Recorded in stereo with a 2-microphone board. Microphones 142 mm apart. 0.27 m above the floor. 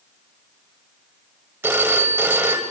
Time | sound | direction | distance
1.6 | a phone ringing | 15° right (ahead or behind) | 0.9 m